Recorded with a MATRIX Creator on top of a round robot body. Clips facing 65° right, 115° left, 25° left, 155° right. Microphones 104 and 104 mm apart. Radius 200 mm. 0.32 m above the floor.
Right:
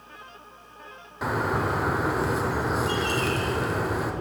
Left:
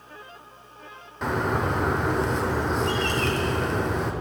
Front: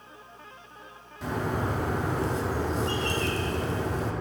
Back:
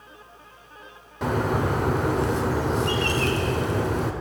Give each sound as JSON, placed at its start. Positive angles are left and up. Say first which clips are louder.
{"t": 1.2, "sound": "a bird", "louder": "left 1 dB, back 6 dB", "azimuth_deg": -155, "distance_m": 1.1}